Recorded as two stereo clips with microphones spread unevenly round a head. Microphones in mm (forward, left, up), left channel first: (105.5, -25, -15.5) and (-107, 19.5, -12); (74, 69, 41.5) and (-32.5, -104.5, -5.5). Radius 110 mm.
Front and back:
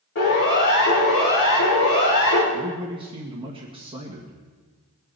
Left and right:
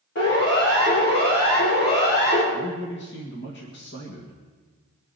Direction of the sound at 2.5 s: 100° left.